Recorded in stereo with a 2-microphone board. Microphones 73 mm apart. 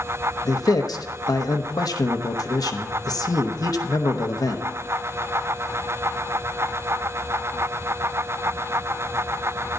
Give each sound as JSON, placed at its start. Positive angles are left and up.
{"t": 0.5, "sound": "a man speaking", "side_deg": 60, "distance_m": 0.9}